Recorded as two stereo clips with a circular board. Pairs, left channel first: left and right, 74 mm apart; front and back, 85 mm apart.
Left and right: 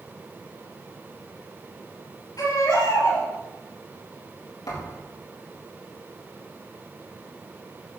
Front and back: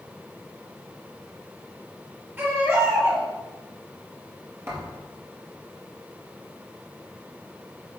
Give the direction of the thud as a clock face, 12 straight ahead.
8 o'clock.